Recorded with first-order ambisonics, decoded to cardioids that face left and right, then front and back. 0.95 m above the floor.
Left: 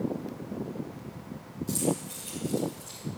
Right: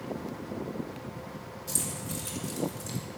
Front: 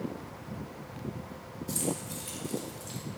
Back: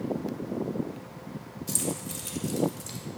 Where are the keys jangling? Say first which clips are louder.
Left 5 dB, back 2 dB; 160° right, 3 m; by 3.0 s 150° right, 3.5 m.